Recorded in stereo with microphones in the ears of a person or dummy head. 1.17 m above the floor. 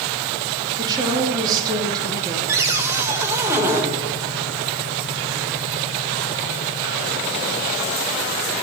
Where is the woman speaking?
20° right (ahead or behind), 1.9 m.